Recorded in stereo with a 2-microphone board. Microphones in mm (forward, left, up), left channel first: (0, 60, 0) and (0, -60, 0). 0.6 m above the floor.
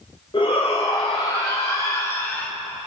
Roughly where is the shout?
Left.